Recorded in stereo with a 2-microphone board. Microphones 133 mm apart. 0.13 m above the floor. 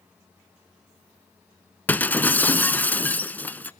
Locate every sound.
1.9 s breaking glass: 15° left (ahead or behind), 0.7 m